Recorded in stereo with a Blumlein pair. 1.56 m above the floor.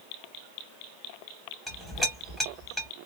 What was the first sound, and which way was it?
A clink, straight ahead.